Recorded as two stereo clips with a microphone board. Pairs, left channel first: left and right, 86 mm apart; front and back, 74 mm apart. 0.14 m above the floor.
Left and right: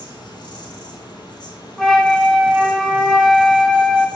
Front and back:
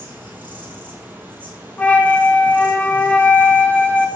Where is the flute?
5° left, 0.6 m.